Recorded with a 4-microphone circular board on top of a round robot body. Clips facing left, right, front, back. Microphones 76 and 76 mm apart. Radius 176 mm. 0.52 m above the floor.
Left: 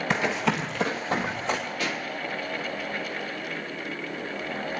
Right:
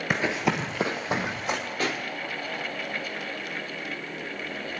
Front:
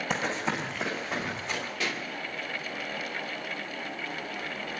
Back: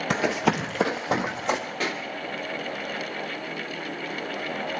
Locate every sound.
0.1 s running footsteps: 175° right, 0.6 m; by 1.6 s 170° right, 3 m
1.8 s a pop: 135° right, 2.5 m